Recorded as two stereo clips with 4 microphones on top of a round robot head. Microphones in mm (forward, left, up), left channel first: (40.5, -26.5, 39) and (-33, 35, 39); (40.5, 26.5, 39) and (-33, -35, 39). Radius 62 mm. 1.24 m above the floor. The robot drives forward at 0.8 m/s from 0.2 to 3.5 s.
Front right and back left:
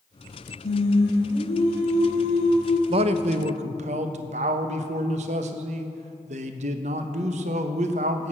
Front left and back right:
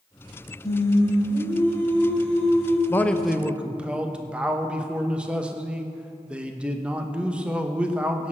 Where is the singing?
25° right, 3 m; by 2.8 s 55° right, 1.5 m.